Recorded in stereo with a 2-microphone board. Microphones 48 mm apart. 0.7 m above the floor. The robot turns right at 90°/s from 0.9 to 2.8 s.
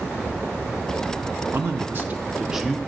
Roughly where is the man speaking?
Right.